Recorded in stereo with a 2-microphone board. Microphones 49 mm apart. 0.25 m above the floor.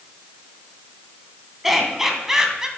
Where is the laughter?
5° right (ahead or behind), 2.5 m; by 2.7 s 15° right (ahead or behind), 2.5 m.